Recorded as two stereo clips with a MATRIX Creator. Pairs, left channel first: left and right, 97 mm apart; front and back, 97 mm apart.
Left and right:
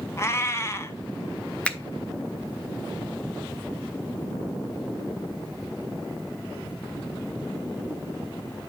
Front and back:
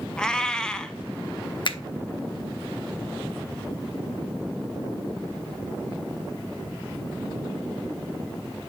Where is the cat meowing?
75° left, 0.6 m.